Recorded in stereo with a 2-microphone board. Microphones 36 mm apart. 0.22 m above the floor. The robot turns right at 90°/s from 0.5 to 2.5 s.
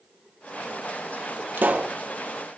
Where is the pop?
60° right, 2.5 m; by 2.0 s 25° right, 2.5 m.